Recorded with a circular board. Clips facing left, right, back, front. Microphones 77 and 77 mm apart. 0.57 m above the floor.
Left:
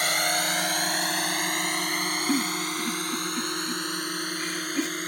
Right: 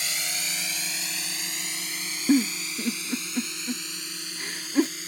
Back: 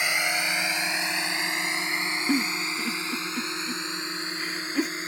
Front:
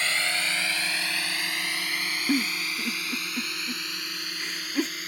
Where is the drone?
105° left; by 5.1 s 120° left.